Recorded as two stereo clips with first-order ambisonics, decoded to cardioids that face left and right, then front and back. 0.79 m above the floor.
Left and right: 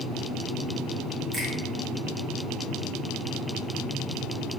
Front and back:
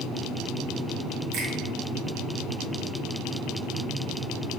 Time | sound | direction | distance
1.3 | a finger snap | 150° right | 1.0 m